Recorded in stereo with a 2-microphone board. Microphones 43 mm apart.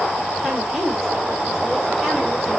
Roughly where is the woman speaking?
Centre.